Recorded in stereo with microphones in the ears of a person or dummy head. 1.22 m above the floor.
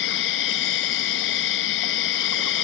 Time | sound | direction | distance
0.0 | an insect | 65° left (ahead or behind) | ?